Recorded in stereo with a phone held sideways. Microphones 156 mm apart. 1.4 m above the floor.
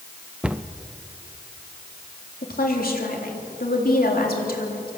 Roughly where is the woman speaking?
Left.